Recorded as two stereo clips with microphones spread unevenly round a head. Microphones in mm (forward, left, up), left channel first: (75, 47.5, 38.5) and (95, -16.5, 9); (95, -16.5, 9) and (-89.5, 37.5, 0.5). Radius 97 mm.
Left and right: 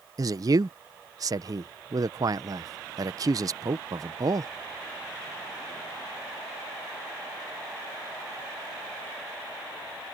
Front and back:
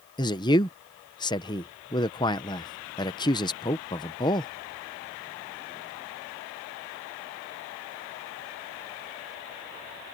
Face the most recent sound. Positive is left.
turn(degrees=-85)